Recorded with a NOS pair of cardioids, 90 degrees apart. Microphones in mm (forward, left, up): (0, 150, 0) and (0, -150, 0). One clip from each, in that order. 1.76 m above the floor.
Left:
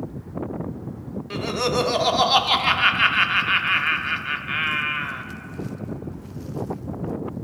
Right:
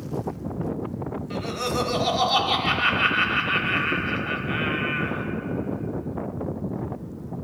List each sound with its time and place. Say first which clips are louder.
1.3 s laughter: left 5 dB; 25° left, 0.6 m